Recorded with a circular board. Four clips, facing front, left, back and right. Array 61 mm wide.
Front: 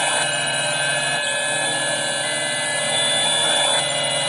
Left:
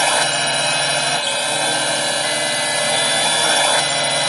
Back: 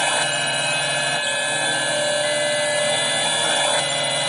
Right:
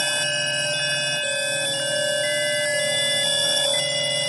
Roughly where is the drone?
Left.